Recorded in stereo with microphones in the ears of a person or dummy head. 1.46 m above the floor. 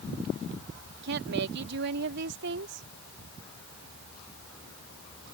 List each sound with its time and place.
1.0 s a woman speaking: 65° right (ahead or behind)